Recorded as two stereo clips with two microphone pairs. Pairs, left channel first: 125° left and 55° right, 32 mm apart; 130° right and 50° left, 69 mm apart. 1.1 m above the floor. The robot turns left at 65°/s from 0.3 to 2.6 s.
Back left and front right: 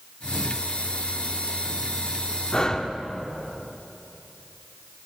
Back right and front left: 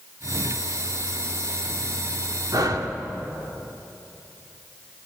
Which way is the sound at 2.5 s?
70° left.